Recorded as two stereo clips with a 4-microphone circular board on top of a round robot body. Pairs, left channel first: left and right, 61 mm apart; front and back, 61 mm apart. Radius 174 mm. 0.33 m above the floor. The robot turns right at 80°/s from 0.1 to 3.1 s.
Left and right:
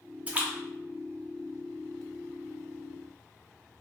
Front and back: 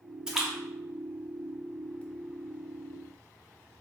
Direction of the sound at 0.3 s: 115° right.